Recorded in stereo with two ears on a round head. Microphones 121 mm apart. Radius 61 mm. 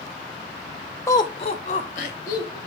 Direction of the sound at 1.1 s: 20° left (ahead or behind).